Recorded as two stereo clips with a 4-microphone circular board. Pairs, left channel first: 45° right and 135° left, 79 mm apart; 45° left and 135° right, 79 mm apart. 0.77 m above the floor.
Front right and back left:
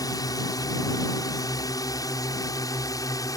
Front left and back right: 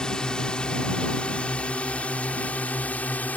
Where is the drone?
35° right; by 3.4 s 20° right.